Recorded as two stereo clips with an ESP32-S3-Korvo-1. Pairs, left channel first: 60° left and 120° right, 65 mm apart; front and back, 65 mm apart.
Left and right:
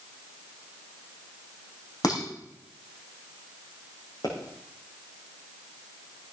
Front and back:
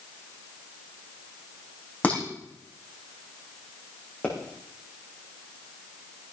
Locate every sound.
2.0 s dishes clattering: 65° left, 4.5 m
4.2 s a pop: 70° left, 6.5 m